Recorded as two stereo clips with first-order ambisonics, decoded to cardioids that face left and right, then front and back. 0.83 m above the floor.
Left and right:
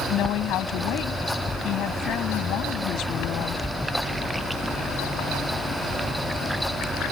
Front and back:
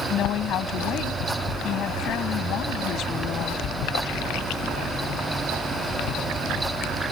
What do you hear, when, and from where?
0.1 s a woman speaking: 50° left